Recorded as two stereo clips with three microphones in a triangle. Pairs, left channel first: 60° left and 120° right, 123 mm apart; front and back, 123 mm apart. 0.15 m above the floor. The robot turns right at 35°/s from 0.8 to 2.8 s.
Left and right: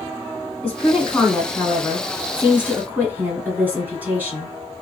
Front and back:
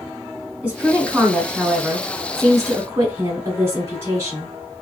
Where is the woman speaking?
120° left, 1.1 m; by 4.5 s 170° right, 1.1 m.